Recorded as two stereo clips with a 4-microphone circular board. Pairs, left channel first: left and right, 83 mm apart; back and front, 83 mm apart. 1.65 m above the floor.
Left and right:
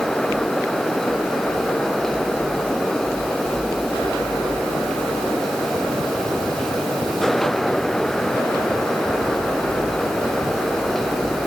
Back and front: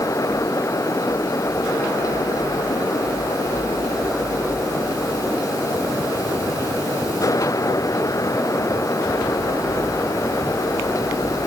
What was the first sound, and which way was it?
Only background noise.